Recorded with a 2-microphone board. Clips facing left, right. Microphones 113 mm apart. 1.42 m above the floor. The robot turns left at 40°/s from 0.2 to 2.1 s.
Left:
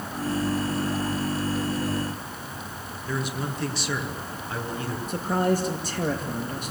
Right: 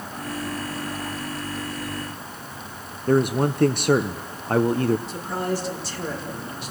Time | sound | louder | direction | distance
3.1 | a man speaking | right 11 dB | 50° right (ahead or behind) | 0.7 m
5.1 | a man speaking | left 3 dB | 45° left (ahead or behind) | 2.5 m